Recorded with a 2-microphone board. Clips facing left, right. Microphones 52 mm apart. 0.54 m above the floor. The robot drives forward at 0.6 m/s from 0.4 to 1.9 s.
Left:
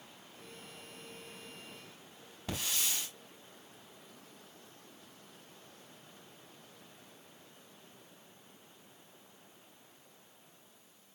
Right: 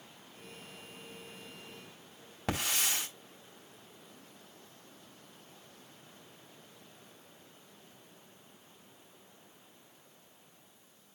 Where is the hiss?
65° right (ahead or behind), 4 m.